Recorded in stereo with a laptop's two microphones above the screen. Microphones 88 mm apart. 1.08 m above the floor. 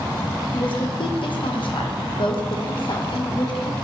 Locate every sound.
0.5 s a woman speaking: 65° left (ahead or behind), 0.9 m